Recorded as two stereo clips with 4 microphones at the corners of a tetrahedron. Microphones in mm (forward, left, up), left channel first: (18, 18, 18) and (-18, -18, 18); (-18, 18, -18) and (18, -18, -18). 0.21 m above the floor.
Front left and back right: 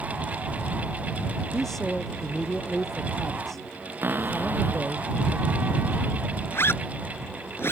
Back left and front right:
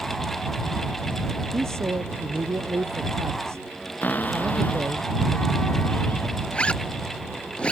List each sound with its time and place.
1.5 s a man speaking: 40° right
4.0 s a cupboard door: straight behind
6.5 s a zipper: 70° left